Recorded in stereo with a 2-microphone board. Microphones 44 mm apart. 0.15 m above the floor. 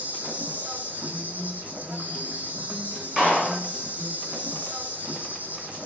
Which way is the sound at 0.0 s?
35° right (ahead or behind).